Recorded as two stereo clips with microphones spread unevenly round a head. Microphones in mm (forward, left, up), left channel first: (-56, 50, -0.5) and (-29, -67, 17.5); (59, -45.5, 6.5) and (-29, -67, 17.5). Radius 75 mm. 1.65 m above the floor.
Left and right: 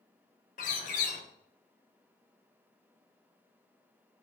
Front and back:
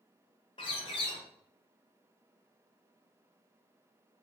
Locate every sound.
0.6 s a bird: 70° left, 0.6 m